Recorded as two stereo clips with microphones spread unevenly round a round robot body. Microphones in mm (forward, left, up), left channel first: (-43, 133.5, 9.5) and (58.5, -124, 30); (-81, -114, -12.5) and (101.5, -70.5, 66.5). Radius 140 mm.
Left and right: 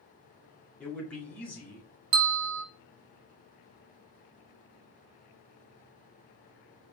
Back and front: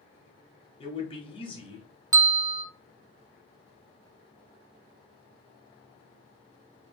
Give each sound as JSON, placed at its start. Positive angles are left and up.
{"t": 0.8, "sound": "a man speaking", "azimuth_deg": -170, "distance_m": 1.4}
{"t": 2.1, "sound": "a bell", "azimuth_deg": -45, "distance_m": 0.8}